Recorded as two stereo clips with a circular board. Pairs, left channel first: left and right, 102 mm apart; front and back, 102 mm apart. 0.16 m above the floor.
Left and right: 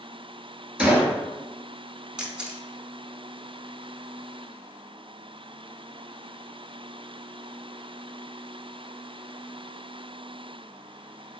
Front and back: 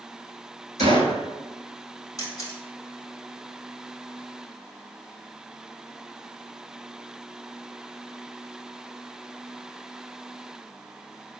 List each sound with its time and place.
0.8 s a gunshot: 170° right, 0.7 m
2.2 s a camera shutter: 15° right, 0.7 m